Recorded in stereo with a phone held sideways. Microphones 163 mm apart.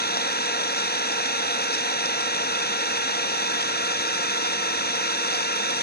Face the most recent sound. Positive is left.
turn(degrees=75)  # may be behind; listen again after turning